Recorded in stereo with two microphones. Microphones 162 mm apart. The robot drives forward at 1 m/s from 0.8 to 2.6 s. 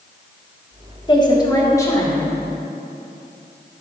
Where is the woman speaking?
30° left (ahead or behind), 1.3 m; by 2.3 s 15° left (ahead or behind), 2.5 m.